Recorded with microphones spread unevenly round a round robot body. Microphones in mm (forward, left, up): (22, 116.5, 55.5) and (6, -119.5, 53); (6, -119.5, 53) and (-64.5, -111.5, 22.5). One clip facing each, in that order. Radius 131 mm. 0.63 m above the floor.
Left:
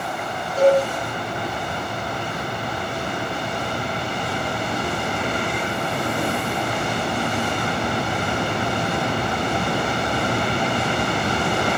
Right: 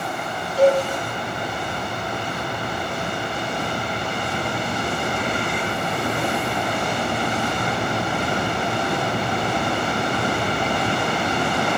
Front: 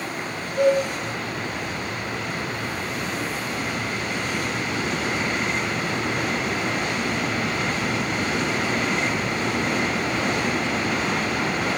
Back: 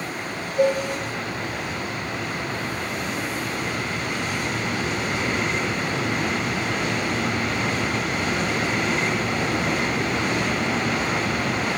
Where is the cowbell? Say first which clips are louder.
Left 1 dB, front 1 dB; 40° left, 3 m.